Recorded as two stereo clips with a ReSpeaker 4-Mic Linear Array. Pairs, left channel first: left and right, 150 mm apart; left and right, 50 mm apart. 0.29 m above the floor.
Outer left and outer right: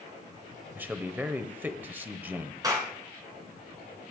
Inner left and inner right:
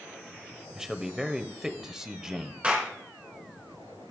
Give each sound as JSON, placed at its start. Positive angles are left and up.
{"t": 0.8, "sound": "a man speaking", "side_deg": -10, "distance_m": 0.9}
{"t": 2.6, "sound": "a clap", "side_deg": -25, "distance_m": 2.5}